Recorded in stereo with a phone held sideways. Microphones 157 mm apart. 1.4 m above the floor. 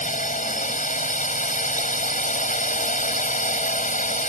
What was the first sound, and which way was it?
A drone, 55° left (ahead or behind).